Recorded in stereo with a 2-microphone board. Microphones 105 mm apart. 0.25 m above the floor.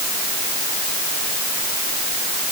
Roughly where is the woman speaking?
I don't hear a woman speaking.